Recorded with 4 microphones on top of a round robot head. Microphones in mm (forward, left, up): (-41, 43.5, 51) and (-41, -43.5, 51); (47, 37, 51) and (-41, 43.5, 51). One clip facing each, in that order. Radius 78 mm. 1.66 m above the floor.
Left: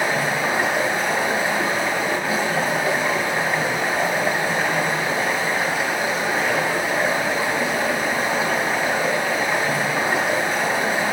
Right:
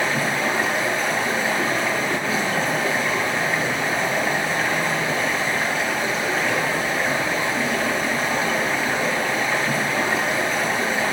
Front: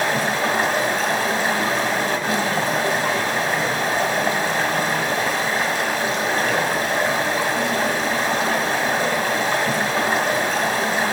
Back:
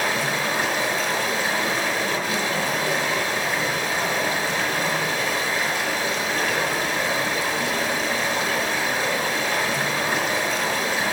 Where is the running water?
10° left, 1.5 m.